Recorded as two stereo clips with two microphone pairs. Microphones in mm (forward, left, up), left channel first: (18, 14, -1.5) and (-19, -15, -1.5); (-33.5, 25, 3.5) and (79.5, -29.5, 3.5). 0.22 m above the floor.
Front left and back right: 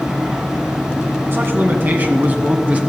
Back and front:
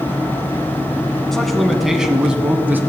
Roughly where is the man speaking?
Behind right.